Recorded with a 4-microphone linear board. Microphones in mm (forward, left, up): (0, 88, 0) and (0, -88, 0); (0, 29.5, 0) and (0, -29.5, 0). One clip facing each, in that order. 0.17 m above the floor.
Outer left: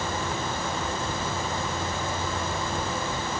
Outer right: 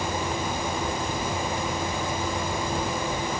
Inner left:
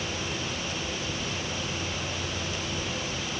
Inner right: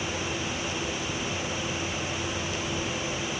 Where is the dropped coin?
I don't hear a dropped coin.